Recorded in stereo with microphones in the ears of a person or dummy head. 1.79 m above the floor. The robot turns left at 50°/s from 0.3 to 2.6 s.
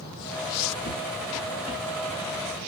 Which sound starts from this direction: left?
Footsteps, at 0.8 s.